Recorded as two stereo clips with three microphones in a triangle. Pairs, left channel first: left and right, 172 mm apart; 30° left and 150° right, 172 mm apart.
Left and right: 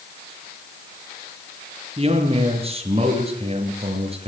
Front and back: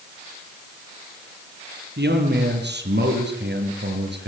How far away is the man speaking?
About 6 m.